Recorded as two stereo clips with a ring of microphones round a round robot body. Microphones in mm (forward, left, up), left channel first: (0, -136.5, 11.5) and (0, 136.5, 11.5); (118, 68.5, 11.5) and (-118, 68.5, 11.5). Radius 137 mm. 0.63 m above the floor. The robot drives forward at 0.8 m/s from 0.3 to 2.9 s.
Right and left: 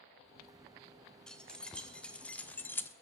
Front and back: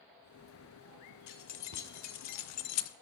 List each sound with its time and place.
1.3 s keys jangling: 5° right, 1.9 m; by 2.9 s 10° right, 0.6 m